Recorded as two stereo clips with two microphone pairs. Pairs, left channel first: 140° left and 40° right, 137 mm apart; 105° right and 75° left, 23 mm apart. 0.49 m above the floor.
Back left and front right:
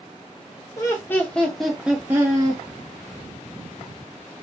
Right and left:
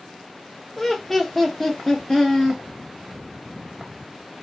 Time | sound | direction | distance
0.8 | laughter | 175° right | 1.1 m